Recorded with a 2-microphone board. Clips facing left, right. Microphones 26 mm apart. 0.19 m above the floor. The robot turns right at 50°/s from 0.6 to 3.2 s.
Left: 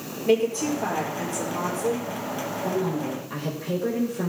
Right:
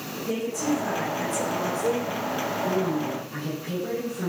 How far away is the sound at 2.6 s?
About 6 m.